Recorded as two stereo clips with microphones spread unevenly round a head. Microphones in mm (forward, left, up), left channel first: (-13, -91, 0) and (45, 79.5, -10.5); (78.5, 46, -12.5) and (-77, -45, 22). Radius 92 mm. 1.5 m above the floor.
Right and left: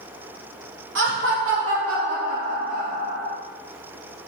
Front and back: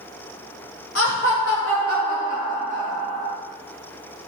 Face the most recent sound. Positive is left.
turn(degrees=95)